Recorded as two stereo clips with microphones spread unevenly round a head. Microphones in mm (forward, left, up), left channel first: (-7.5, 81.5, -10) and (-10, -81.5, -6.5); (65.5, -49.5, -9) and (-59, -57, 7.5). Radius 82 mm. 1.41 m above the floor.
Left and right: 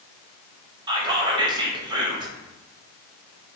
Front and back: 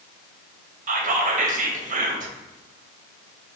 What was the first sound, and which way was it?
Whispering, 155° right.